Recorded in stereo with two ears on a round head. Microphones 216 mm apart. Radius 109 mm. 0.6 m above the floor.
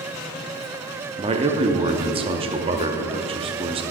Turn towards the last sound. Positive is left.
turn(degrees=-25)  # may be behind; listen again after turning